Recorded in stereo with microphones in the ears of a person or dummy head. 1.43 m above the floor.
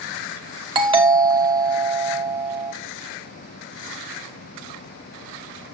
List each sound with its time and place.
0.8 s a doorbell: 30° right (ahead or behind), 1.2 m